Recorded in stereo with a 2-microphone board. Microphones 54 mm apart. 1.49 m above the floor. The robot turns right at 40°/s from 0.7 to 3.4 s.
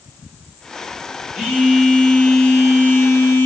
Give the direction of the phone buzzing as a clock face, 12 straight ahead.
1 o'clock.